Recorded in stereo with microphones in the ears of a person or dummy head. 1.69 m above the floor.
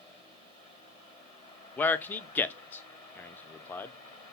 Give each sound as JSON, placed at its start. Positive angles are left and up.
{"t": 1.8, "sound": "a man speaking", "side_deg": 10, "distance_m": 0.5}